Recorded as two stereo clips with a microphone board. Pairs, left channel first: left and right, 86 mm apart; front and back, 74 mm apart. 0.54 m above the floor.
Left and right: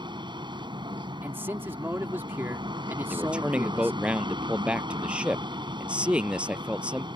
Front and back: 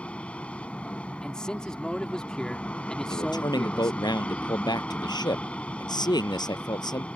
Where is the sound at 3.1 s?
15° right.